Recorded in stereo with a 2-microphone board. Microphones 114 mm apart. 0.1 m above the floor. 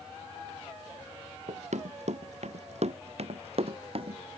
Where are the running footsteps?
80° right; by 4.2 s 55° right (ahead or behind).